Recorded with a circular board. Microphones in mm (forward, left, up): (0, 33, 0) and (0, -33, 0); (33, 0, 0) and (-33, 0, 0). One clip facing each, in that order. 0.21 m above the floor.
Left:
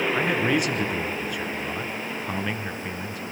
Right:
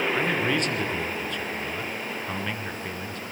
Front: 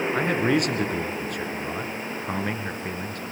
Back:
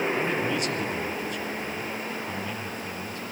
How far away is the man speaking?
About 2.5 m.